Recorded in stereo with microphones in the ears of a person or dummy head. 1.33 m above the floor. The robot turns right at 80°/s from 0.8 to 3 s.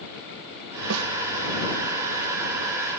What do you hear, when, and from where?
0.9 s a snare drum: 75° right (ahead or behind); by 1.1 s 85° right